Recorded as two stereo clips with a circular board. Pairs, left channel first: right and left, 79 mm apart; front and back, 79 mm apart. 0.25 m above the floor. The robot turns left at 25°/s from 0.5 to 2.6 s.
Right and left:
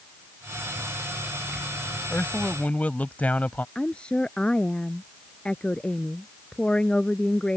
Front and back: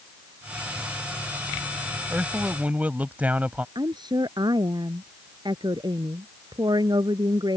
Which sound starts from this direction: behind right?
A man speaking, at 2.1 s.